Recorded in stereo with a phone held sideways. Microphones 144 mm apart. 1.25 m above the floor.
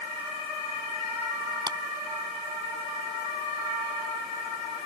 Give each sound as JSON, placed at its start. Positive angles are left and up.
{"t": 1.7, "sound": "a clap", "side_deg": -30}